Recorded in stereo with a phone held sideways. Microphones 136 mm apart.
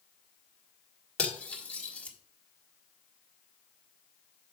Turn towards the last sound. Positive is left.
turn(degrees=10)  # may be behind; listen again after turning